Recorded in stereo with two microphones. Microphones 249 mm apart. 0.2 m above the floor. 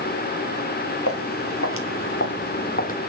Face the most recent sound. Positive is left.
turn(degrees=30)  # may be behind; listen again after turning